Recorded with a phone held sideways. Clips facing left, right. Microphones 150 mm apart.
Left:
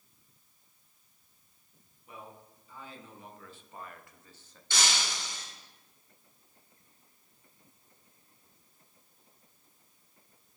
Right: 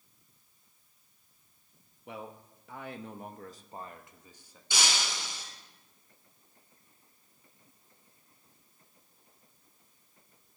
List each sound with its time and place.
2.1 s a man speaking: 90° right, 1.3 m; by 4.6 s 10° right (ahead or behind), 1.3 m
4.7 s breaking glass: 10° right (ahead or behind), 6 m